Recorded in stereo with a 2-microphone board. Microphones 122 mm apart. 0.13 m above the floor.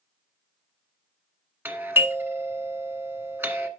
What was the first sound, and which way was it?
A doorbell, 15° right (ahead or behind).